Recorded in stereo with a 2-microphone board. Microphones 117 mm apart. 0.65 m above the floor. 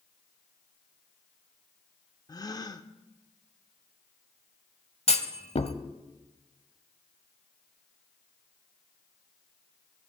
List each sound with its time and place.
2.3 s a gasp: 35° left (ahead or behind), 0.6 m
5.1 s a clunk: 65° left (ahead or behind), 0.8 m